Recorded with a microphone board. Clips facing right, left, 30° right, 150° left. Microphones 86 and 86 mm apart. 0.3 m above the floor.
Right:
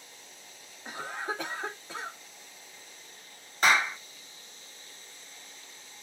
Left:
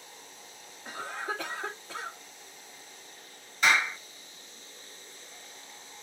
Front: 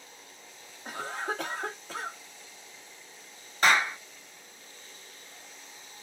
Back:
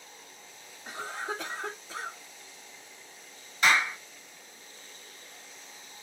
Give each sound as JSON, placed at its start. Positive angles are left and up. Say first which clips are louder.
{"t": 0.8, "sound": "a cough", "louder": "even, front 2 dB", "azimuth_deg": -20, "distance_m": 1.5}
{"t": 3.6, "sound": "a clap", "louder": "right 1 dB, front 1 dB", "azimuth_deg": -60, "distance_m": 1.3}